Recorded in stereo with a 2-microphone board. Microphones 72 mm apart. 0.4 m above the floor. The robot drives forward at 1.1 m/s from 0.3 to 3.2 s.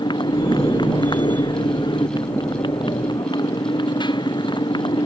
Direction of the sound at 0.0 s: 85° left.